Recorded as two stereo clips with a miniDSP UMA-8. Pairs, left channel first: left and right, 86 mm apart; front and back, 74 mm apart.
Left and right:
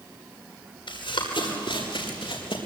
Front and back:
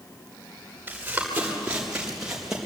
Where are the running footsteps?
110° left, 7 m; by 2.6 s 95° left, 6.5 m.